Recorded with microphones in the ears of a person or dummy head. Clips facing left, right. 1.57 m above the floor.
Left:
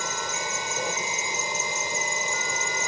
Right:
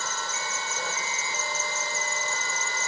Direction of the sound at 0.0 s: 20° left (ahead or behind).